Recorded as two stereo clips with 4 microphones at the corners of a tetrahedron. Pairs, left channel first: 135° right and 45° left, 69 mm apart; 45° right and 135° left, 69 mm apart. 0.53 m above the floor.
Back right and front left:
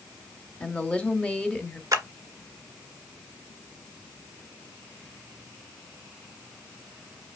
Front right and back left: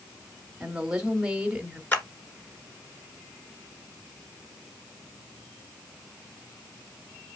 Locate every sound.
0.6 s a woman speaking: straight behind, 1.1 m
1.9 s a clap: 15° left, 1.8 m